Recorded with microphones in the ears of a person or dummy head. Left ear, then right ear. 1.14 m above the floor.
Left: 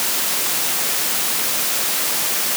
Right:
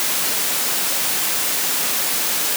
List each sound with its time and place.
Only background noise.